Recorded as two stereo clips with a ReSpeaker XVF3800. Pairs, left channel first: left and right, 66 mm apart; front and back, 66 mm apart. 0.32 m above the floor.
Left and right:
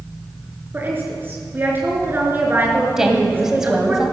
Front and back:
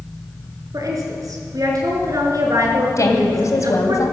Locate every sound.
0.7 s a woman speaking: 150° right, 3.5 m
3.0 s a woman speaking: 10° right, 2 m